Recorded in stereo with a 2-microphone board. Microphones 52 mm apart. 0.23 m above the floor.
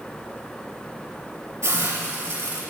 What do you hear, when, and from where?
1.6 s a hiss: 70° right (ahead or behind), 5 m